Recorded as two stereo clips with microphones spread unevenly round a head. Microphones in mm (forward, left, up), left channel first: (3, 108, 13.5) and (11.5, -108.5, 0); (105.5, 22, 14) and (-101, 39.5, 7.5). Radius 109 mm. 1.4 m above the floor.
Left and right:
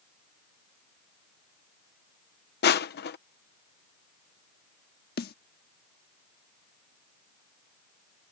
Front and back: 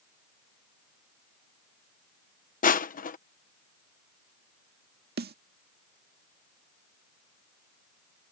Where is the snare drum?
135° left.